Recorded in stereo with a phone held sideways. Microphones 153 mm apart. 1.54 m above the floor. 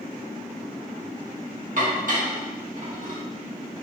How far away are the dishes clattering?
About 1.7 m.